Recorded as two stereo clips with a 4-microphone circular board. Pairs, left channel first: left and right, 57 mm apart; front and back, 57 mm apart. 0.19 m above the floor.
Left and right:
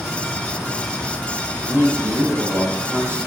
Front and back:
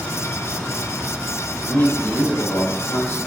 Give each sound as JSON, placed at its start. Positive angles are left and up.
{"t": 1.7, "sound": "a man speaking", "azimuth_deg": -60, "distance_m": 7.5}